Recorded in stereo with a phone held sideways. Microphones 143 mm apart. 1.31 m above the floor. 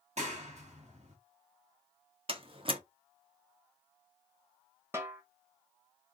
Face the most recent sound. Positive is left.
turn(degrees=-20)  # may be behind; listen again after turning